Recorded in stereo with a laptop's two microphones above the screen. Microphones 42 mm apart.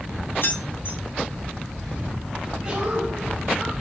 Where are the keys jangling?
60° left (ahead or behind), 0.8 m.